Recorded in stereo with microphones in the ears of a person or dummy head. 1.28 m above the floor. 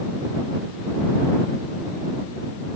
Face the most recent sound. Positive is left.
No sound to turn to.